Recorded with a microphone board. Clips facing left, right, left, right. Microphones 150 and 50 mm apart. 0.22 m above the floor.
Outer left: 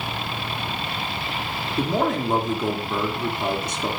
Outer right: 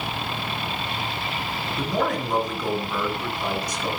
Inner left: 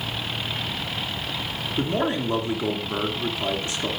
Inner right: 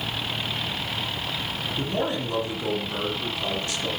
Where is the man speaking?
25° left (ahead or behind), 3 m.